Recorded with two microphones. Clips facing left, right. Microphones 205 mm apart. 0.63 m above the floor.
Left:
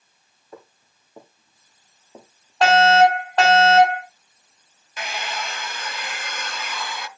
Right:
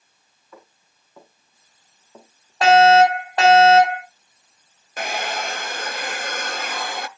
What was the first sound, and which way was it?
Footsteps, 35° left (ahead or behind).